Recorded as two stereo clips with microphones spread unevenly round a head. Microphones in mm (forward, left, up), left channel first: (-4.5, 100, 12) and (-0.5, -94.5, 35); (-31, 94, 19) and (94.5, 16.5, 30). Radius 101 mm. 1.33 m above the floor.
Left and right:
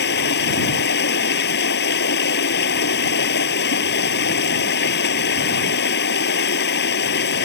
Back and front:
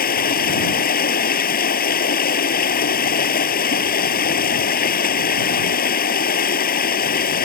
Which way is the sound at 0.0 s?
130° left.